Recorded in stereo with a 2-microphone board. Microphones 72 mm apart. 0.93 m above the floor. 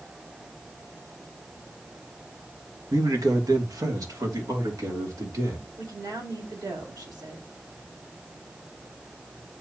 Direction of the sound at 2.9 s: 60° right (ahead or behind).